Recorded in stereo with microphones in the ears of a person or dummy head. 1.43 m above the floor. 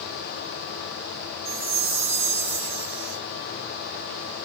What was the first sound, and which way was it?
A chime, 10° right (ahead or behind).